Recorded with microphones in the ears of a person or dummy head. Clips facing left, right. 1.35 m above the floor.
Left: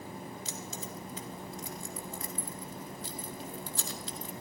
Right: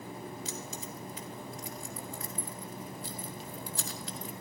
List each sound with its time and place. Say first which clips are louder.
0.5 s keys jangling: right 1 dB; 25° left (ahead or behind), 1.5 m